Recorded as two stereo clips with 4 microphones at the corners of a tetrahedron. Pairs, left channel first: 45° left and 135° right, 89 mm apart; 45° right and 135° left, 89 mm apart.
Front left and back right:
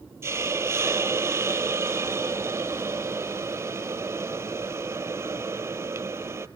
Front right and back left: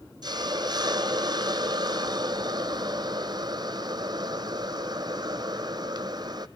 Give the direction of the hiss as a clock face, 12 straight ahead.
6 o'clock.